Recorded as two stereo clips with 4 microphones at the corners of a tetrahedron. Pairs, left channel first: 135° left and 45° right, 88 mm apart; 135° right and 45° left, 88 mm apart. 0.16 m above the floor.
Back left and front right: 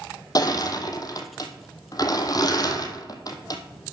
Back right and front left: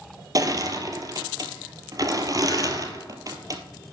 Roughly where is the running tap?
No running tap in this recording.